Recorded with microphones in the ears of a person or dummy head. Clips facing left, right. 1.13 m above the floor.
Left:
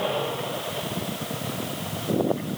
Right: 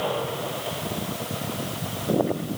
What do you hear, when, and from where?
Only background noise.